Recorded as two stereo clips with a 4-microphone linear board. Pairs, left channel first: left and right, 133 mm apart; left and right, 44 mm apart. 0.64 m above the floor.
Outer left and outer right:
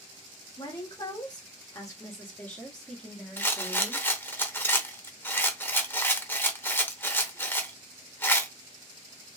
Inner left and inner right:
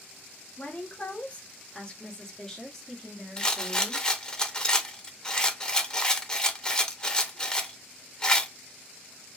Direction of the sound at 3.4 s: 15° left (ahead or behind).